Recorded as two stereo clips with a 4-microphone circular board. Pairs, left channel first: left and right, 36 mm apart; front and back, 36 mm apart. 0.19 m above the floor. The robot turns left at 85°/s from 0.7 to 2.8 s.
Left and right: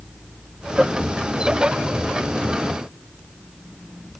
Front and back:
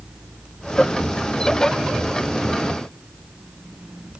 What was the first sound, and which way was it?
Only background noise.